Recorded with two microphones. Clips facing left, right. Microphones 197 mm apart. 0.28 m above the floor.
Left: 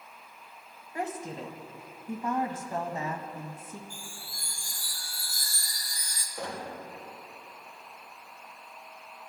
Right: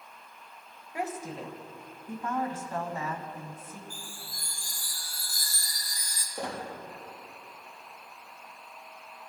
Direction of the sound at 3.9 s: 45° right (ahead or behind).